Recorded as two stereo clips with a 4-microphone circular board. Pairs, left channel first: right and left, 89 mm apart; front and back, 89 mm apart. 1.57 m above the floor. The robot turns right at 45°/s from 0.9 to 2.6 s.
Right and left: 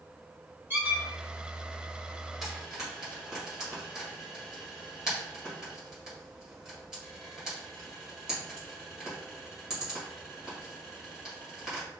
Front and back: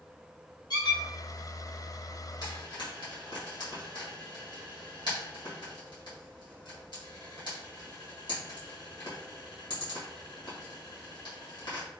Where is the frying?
Straight ahead, 1.4 m; by 11.9 s 10° left, 1.4 m.